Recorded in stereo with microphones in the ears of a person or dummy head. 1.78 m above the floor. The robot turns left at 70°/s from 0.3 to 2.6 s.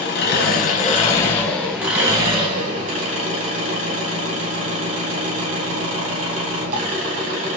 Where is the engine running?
100° left, 1.1 m; by 7.6 s 60° right, 1.1 m.